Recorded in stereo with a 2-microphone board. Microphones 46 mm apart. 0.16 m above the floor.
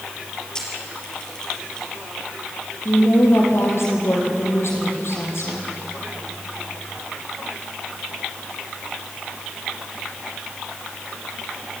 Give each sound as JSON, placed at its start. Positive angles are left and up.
{"t": 0.6, "sound": "a camera shutter", "side_deg": 20, "distance_m": 4.5}
{"t": 2.9, "sound": "a woman speaking", "side_deg": 75, "distance_m": 5.5}